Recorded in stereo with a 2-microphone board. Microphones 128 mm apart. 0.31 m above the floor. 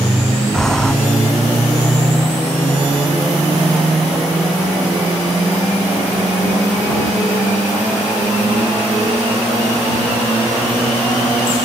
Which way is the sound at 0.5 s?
5° left (ahead or behind).